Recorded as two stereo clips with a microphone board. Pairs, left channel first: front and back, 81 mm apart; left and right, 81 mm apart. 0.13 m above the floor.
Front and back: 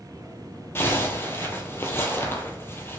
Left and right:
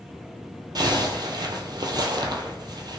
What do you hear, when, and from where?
0.8 s a zipper: 60° right, 0.6 m